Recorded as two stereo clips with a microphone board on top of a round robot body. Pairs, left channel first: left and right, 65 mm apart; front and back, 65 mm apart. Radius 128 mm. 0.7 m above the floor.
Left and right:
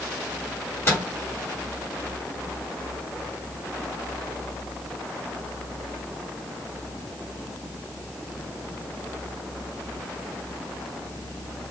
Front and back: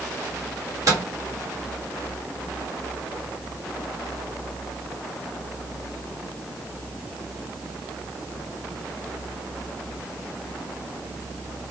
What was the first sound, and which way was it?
A microwave, 145° left.